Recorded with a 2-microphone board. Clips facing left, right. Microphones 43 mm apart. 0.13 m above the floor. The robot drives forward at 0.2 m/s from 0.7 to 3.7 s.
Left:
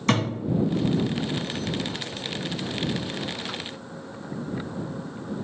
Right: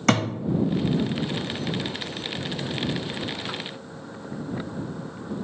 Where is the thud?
70° right (ahead or behind), 1.7 m.